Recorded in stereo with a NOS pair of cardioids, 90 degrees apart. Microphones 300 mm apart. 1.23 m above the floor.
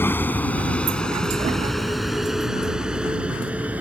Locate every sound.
0.0 s a vehicle: 5° left; by 3.8 s 5° right